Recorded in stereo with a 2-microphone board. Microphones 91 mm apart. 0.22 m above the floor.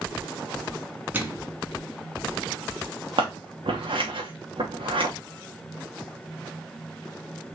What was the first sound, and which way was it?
A microwave, 20° right (ahead or behind).